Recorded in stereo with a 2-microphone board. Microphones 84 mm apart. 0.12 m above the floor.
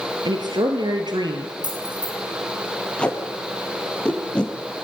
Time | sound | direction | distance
0.2 | a woman speaking | 55° right (ahead or behind) | 3 m
1.6 | keys jangling | 55° right (ahead or behind) | 6 m
3.0 | tape being pulled | 10° left (ahead or behind) | 3 m